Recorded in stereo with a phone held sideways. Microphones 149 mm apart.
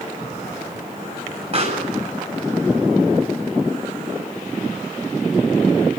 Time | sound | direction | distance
1.5 | a pop | 45° right (ahead or behind) | 8.5 m